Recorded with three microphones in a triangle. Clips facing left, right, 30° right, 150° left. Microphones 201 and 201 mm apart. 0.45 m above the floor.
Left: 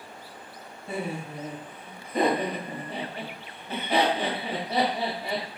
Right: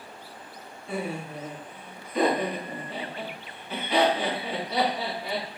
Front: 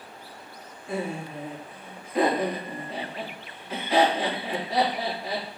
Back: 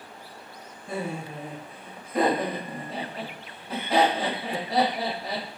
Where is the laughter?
105° left, 2.5 m.